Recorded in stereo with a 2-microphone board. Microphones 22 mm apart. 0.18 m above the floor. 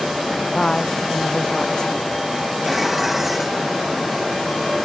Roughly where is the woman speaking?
Left.